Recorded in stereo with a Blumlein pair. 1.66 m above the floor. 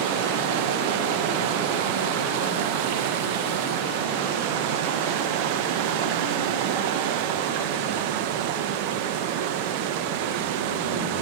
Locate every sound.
0.0 s running water: 45° right, 1.6 m